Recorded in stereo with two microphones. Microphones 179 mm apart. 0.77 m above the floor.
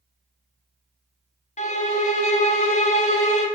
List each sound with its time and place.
1.6 s a violin: 40° left (ahead or behind), 0.6 m